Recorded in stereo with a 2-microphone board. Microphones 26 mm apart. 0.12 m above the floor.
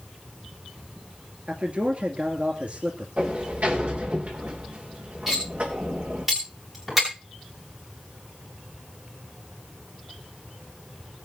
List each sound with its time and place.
1.5 s a man speaking: 50° right (ahead or behind), 2.5 m
3.2 s a sliding door: 70° right (ahead or behind), 7 m
5.3 s cutlery clinking: 15° right (ahead or behind), 9.5 m